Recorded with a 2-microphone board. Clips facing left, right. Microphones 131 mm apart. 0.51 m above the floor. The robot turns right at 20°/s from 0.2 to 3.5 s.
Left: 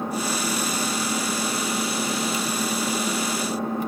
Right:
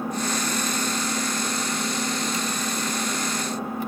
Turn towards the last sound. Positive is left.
turn(degrees=90)